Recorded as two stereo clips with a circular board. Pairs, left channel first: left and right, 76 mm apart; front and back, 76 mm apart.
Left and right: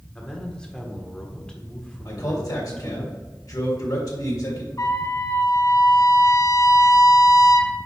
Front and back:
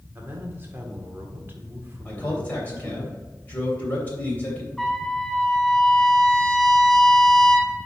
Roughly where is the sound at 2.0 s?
Ahead left.